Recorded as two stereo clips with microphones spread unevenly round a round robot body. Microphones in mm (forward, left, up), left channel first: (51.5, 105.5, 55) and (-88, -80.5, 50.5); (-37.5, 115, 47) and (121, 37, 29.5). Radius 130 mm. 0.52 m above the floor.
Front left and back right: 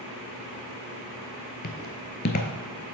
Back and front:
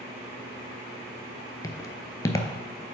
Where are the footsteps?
95° left, 0.7 m.